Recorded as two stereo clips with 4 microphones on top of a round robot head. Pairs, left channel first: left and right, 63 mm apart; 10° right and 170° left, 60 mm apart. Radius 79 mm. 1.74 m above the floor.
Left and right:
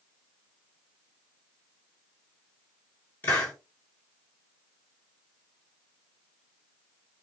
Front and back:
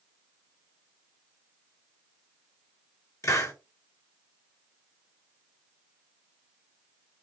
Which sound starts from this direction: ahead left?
A hiss, at 3.2 s.